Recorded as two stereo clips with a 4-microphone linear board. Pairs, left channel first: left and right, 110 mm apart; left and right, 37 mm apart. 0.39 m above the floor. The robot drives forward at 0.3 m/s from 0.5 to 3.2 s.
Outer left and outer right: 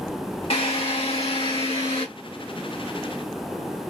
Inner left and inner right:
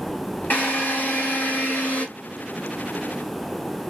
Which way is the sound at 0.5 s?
60° left (ahead or behind).